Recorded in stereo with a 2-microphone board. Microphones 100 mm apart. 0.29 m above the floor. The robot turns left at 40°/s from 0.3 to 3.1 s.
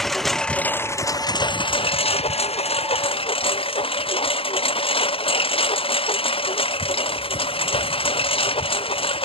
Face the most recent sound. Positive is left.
turn(degrees=65)